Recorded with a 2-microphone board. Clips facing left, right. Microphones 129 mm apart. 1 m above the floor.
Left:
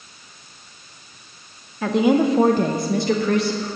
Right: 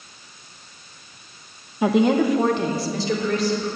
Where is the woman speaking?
20° right (ahead or behind), 0.6 m; by 3.7 s 65° left (ahead or behind), 1.7 m.